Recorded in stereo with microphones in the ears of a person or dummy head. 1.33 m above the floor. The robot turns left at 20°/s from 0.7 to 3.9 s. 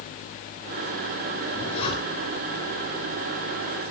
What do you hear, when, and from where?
1.4 s a zipper: 35° left (ahead or behind), 8.5 m; by 2.4 s 15° left (ahead or behind), 8.5 m